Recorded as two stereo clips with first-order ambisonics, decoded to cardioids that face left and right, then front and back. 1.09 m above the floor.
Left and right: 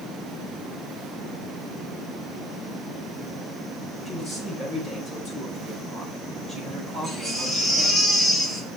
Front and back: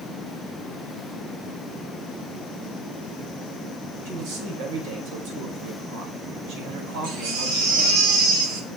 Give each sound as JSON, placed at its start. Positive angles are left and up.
{"t": 4.0, "sound": "a man speaking", "azimuth_deg": 180, "distance_m": 5.0}
{"t": 7.0, "sound": "a baby crying", "azimuth_deg": 180, "distance_m": 2.5}